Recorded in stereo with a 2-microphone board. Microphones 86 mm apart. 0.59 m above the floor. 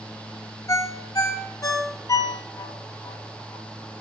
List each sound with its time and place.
0.7 s a ringtone: 40° left (ahead or behind), 0.9 m